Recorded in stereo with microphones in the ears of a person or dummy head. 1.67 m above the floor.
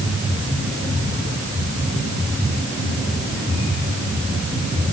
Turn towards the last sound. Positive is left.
No sound to turn to.